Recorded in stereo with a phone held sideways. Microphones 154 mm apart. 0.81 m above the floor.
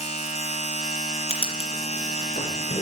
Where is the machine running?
45° left (ahead or behind), 2 m.